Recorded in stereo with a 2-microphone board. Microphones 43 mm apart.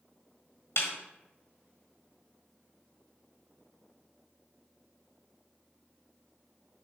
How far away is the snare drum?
About 1.5 m.